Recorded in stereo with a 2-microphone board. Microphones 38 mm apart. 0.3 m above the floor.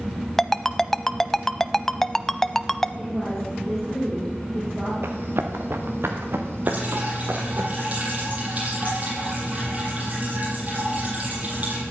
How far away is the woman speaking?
About 6.5 m.